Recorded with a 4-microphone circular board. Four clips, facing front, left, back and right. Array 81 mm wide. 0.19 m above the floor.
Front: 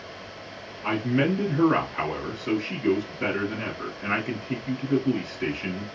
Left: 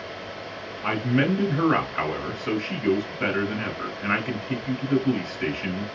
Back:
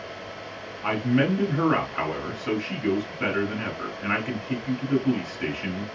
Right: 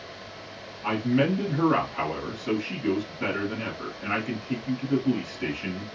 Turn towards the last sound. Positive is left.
turn(degrees=140)